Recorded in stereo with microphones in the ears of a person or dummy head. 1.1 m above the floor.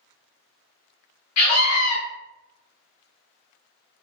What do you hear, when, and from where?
1.4 s a scream: 85° left, 0.6 m